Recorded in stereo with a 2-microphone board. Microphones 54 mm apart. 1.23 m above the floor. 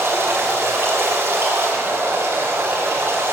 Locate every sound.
0.0 s running water: 55° right (ahead or behind), 3 m